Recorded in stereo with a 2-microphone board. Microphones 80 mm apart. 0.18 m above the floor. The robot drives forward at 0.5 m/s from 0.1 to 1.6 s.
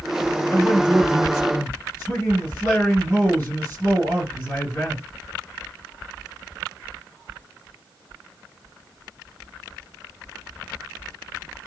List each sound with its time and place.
0.5 s a man speaking: 30° left (ahead or behind), 2 m; by 5.0 s 25° left (ahead or behind), 2.5 m